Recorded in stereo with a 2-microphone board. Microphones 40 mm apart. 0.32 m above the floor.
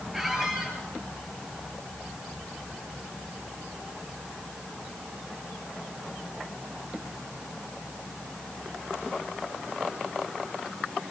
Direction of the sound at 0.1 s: 10° right (ahead or behind).